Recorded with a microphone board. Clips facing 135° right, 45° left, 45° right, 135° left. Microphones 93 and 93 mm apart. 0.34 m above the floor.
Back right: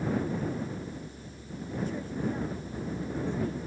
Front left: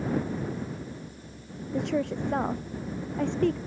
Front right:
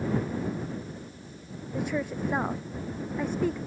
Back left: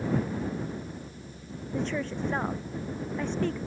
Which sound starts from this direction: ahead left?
A woman speaking, at 1.7 s.